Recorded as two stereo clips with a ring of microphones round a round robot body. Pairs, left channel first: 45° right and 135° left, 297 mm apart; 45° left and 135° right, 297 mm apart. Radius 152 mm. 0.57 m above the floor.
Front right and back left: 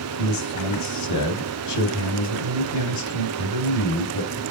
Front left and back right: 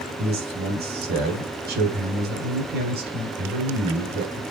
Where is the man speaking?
75° right, 3.5 m.